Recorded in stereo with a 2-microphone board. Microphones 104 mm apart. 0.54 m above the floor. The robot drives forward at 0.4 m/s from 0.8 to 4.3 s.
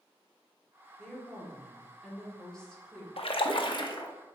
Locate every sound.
1.0 s a woman speaking: 5° left (ahead or behind), 1.6 m
3.2 s a splash: 60° left (ahead or behind), 0.6 m; by 4.1 s 40° left (ahead or behind), 0.8 m